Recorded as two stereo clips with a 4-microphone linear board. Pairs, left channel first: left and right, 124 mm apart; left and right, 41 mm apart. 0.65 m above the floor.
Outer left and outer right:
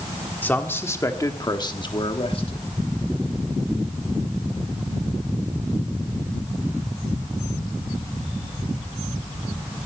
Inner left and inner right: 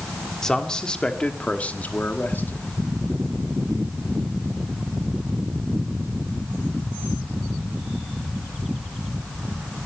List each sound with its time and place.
0.4 s a man speaking: 15° left (ahead or behind), 1.8 m; by 2.6 s 50° left (ahead or behind), 1.4 m